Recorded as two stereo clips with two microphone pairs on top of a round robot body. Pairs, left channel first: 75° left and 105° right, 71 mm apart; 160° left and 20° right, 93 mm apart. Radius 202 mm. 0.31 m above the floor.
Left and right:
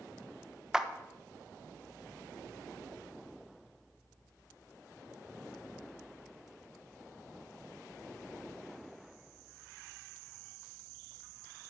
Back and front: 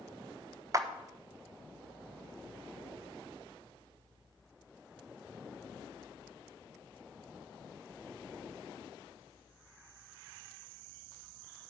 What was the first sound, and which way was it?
A clap, 30° right.